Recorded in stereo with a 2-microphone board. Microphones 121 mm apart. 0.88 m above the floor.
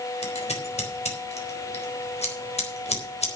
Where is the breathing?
No breathing in this recording.